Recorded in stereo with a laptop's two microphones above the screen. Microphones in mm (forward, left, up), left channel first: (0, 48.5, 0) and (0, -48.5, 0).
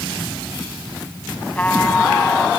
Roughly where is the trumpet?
Centre.